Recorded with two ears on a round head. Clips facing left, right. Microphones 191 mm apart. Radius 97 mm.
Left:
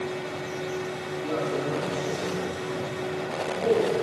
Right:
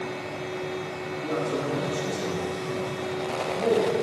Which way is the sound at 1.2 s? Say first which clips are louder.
Even; 5° right (ahead or behind).